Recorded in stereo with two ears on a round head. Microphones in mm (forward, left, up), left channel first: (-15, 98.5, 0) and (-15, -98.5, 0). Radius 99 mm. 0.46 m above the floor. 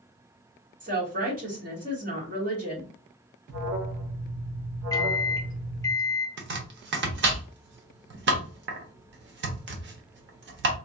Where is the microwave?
15° left (ahead or behind), 0.9 m.